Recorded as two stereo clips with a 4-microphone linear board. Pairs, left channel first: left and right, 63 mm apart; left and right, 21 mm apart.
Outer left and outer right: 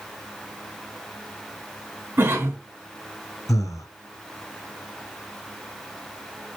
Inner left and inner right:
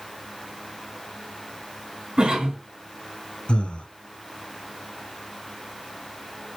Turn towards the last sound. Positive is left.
turn(degrees=70)  # may be behind; listen again after turning